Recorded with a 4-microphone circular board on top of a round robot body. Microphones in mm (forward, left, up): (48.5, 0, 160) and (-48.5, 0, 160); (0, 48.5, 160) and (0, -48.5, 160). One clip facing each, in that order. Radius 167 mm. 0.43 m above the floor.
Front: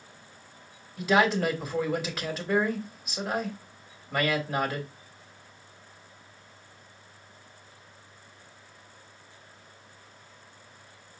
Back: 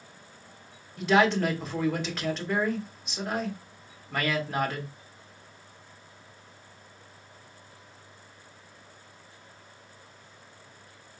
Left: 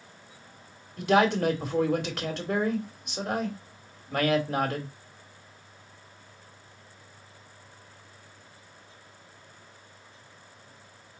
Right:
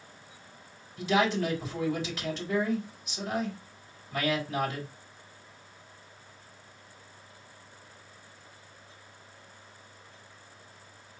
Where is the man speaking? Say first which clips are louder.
Back 1 dB, left 4 dB; 85° left, 2.5 m.